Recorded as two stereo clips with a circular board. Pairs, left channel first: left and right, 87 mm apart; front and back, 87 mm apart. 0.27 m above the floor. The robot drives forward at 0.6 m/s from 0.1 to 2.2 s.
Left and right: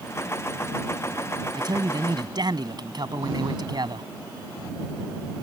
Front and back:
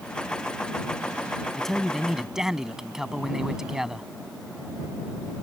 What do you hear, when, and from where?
1.5 s a man speaking: 85° right; by 4.1 s 95° right